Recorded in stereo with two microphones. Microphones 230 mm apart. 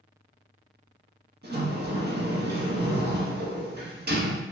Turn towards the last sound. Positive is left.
turn(degrees=-45)  # may be behind; listen again after turning